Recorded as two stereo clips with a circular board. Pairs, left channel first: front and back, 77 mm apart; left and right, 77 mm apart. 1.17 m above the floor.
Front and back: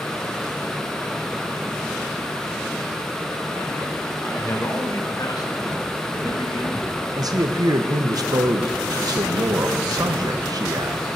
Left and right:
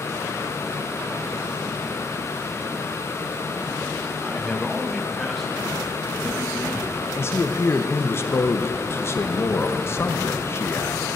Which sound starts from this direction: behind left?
A man speaking, at 7.2 s.